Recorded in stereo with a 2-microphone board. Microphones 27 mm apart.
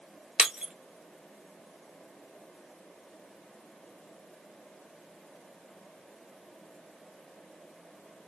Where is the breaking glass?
45° right (ahead or behind), 1.1 m.